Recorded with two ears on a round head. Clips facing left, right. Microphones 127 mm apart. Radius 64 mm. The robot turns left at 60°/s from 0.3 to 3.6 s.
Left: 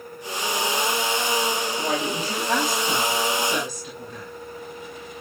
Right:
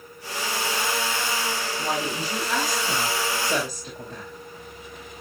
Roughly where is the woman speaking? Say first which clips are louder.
Left 2 dB; left.